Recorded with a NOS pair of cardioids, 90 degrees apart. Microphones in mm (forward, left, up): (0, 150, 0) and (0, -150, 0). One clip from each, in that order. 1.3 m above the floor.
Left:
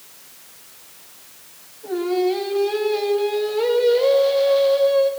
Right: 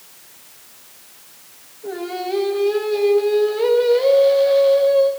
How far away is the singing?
About 2.5 m.